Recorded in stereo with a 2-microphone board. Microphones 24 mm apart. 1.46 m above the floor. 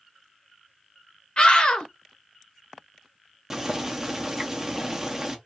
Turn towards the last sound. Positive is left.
turn(degrees=-20)  # may be behind; listen again after turning